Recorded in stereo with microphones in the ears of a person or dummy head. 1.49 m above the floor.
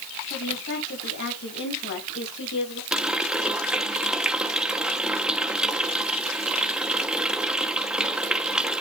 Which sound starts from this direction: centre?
A running tap, at 2.9 s.